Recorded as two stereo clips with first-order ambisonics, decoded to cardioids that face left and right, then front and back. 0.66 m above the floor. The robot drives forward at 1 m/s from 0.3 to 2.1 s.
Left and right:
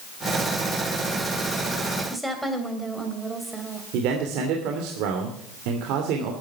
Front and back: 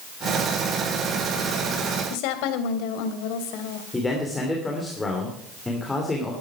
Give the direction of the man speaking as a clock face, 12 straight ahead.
3 o'clock.